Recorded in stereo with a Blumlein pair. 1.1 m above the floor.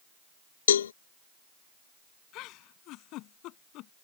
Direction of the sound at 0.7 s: 65° left.